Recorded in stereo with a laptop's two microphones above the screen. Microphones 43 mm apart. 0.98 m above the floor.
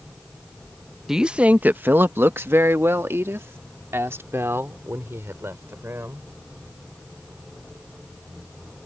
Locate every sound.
1.1 s a woman speaking: 10° right (ahead or behind); by 6.2 s 80° right